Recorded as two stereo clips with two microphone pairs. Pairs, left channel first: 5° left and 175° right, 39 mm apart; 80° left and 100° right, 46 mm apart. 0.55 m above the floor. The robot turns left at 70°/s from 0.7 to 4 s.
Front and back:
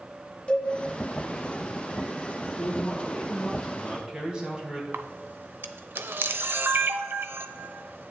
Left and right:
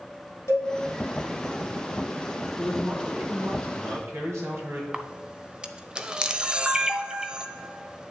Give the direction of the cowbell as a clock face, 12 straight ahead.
10 o'clock.